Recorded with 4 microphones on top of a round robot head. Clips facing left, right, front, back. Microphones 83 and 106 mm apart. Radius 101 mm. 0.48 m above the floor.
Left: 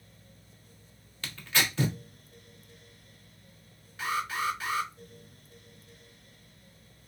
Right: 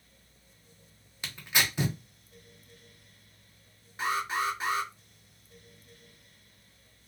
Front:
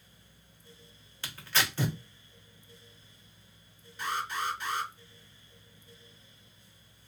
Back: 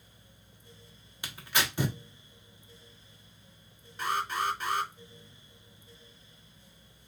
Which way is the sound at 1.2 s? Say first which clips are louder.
Even, even; 135° right.